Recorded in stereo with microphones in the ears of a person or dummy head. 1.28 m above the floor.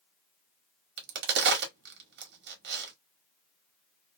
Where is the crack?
60° right (ahead or behind), 1.3 m.